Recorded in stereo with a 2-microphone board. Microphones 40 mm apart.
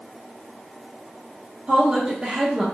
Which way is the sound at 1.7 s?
35° right (ahead or behind).